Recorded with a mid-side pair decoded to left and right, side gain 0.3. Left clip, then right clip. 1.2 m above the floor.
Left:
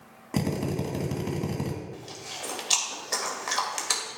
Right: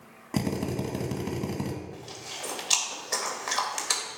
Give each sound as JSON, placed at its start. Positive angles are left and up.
{"t": 0.3, "sound": "a drill", "azimuth_deg": 0, "distance_m": 1.9}
{"t": 1.9, "sound": "chewing", "azimuth_deg": 10, "distance_m": 1.9}